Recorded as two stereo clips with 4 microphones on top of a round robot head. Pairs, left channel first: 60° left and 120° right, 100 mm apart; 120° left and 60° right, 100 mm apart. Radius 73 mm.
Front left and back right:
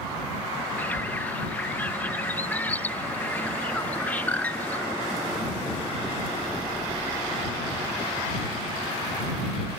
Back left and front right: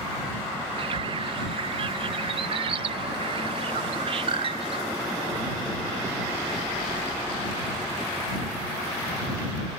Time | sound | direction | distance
0.8 | a bird | 20° right | ?